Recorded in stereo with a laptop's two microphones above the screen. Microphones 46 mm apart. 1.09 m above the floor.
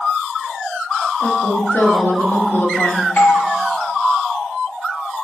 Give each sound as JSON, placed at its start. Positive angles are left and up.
{"t": 1.2, "sound": "a woman speaking", "side_deg": 50, "distance_m": 1.1}
{"t": 3.2, "sound": "a doorbell", "side_deg": 30, "distance_m": 0.6}